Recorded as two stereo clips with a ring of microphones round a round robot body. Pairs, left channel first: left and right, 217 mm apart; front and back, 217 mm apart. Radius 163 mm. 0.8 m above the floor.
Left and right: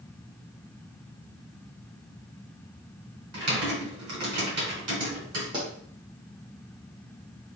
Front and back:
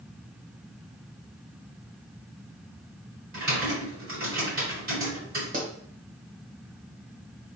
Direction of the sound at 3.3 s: 115° right.